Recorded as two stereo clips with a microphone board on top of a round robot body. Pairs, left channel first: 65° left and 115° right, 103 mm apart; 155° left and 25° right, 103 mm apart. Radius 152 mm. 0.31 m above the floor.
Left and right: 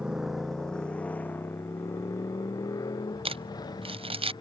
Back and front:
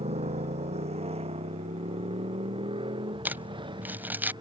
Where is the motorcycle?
30° right; by 4.4 s 20° left.